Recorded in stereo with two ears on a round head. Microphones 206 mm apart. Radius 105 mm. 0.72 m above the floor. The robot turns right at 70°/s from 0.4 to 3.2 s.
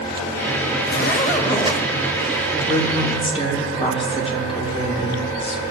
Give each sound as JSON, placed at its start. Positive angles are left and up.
{"t": 0.8, "sound": "a zipper", "azimuth_deg": 95, "distance_m": 1.0}
{"t": 2.6, "sound": "a woman speaking", "azimuth_deg": 110, "distance_m": 3.0}